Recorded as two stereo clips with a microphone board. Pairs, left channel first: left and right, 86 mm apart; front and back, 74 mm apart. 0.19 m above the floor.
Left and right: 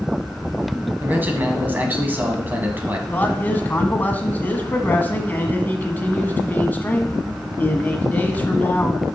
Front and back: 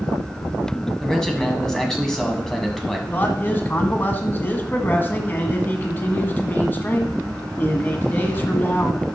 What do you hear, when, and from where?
1.0 s a man speaking: 70° right, 1.5 m
3.1 s a man speaking: 40° left, 1.4 m